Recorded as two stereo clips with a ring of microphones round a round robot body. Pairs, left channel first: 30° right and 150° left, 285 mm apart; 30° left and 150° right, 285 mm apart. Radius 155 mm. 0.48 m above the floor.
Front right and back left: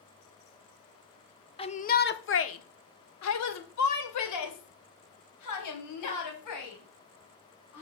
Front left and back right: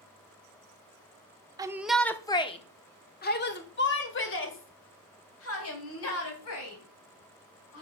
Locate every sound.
1.6 s a shout: 85° right, 0.8 m; by 7.8 s 5° right, 4 m